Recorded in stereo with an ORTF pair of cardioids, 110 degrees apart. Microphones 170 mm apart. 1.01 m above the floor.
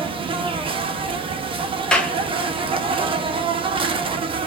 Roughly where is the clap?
Ahead.